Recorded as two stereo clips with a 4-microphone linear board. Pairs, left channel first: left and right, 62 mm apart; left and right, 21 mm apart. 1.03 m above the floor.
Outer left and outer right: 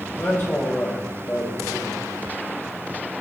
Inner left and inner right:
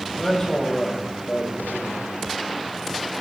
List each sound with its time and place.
0.2 s a man speaking: 40° left (ahead or behind), 4.5 m